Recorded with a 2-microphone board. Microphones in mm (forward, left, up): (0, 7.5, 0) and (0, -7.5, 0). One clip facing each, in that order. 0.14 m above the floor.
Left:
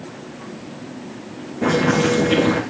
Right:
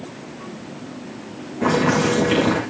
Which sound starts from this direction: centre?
Boiling, at 1.6 s.